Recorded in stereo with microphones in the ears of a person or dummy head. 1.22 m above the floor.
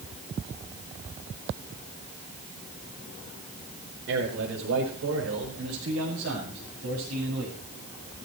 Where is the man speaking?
80° right, 4.5 m; by 7.6 s 60° right (ahead or behind), 7 m.